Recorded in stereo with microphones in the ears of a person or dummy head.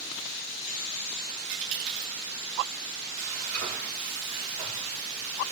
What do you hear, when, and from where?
1.5 s a dropped coin: 60° right (ahead or behind), 1.6 m
3.2 s frying: 50° right (ahead or behind), 3 m